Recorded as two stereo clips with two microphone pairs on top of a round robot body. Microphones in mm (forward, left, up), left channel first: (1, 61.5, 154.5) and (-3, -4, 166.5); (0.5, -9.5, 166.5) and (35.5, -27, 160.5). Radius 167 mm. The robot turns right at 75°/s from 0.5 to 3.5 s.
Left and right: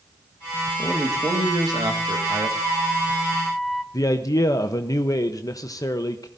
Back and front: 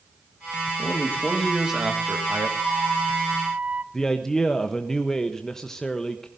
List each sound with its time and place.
0.8 s a man speaking: 175° right, 1.9 m; by 2.5 s 45° right, 1.9 m
2.6 s a flute: 60° right, 0.9 m; by 3.8 s 5° left, 0.9 m
3.9 s a man speaking: 70° left, 1.0 m